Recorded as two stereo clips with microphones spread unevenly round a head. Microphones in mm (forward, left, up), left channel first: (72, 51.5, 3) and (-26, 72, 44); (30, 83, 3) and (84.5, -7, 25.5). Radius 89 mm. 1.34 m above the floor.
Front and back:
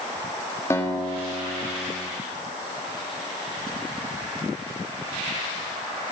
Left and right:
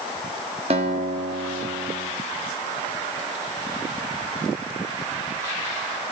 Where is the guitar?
95° right, 1.3 m.